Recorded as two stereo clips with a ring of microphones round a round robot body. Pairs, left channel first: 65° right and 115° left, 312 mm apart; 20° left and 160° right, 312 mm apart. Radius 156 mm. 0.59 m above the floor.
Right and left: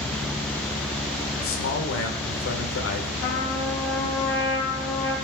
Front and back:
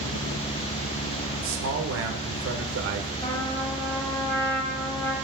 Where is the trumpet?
55° right, 3.5 m.